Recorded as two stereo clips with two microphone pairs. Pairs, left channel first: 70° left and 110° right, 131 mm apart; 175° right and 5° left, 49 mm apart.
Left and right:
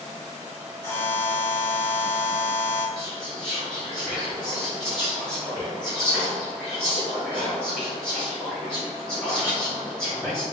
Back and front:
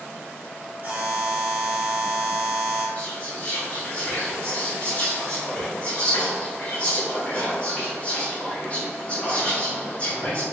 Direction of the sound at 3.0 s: 145° left.